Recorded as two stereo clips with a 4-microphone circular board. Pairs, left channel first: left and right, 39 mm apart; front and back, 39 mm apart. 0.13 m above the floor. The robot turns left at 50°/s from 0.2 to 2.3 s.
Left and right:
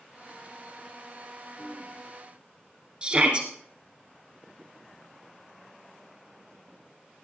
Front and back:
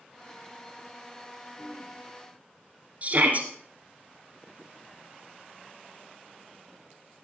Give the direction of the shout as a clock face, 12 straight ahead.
5 o'clock.